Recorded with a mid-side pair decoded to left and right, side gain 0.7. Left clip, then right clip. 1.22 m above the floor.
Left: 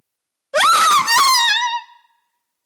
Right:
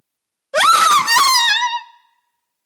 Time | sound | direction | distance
0.5 | a scream | straight ahead | 0.5 m